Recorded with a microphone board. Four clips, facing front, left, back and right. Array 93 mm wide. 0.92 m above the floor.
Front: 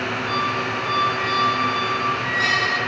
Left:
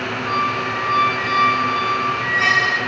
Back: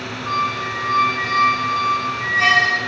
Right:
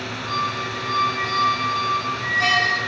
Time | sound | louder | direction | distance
0.3 | a squeak | left 4 dB, back 4 dB | 150° left | 1.6 m